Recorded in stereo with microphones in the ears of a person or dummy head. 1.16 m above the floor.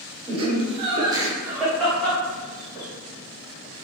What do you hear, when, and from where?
0.3 s laughter: 35° right (ahead or behind), 1.1 m; by 2.9 s 15° left (ahead or behind), 1.6 m